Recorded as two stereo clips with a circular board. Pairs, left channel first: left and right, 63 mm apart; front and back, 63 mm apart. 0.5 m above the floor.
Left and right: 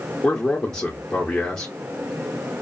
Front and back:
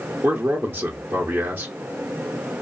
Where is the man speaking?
170° left, 1.0 m.